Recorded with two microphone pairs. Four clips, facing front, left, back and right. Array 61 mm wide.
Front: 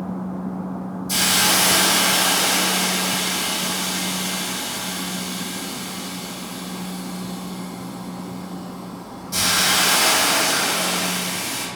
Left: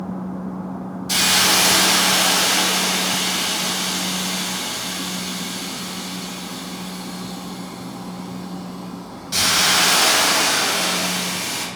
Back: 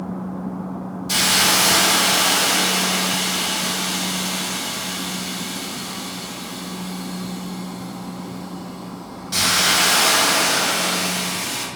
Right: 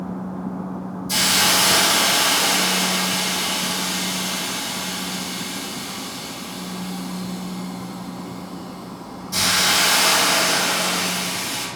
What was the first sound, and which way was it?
A hiss, 135° left.